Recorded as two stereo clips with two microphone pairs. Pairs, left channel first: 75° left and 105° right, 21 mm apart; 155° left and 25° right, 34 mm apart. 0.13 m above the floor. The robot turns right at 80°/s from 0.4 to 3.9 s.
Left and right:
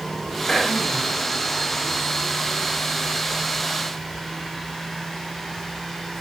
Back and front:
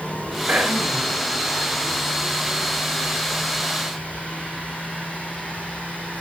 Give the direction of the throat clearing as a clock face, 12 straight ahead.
12 o'clock.